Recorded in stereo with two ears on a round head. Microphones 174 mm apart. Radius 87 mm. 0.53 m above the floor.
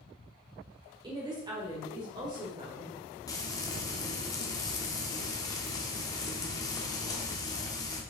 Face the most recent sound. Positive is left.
turn(degrees=20)  # may be behind; listen again after turning